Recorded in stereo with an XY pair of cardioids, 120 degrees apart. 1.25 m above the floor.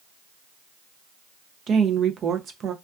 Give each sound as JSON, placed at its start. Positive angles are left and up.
{"t": 1.7, "sound": "a woman speaking", "azimuth_deg": -50, "distance_m": 0.5}